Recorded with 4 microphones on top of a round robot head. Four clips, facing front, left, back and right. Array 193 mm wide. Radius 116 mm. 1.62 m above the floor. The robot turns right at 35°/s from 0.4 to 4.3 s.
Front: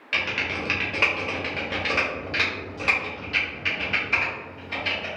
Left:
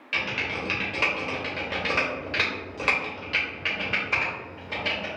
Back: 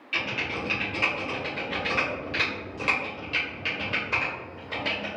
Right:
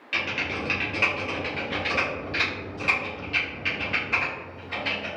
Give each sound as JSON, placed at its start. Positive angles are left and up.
{"t": 0.1, "sound": "typing on a keyboard", "azimuth_deg": 0, "distance_m": 1.1}